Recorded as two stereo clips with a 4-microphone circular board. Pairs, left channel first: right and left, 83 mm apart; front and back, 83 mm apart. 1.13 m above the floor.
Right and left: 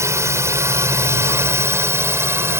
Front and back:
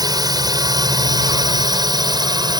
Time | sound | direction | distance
0.0 | a drone | 145° left | ?